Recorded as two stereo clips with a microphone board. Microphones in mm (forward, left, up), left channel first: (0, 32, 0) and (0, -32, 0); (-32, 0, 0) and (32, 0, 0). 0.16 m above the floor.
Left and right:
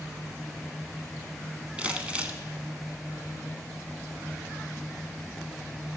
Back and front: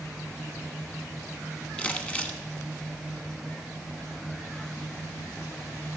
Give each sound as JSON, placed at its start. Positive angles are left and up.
{"t": 1.8, "sound": "crumpling", "azimuth_deg": -135, "distance_m": 1.1}